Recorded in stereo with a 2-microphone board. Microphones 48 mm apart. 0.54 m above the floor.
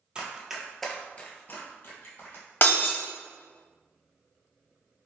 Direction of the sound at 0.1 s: 20° right (ahead or behind).